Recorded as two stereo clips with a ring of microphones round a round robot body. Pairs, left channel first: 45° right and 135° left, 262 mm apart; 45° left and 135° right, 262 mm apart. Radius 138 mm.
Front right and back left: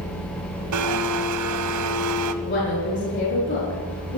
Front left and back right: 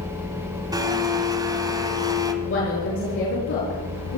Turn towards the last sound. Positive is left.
turn(degrees=0)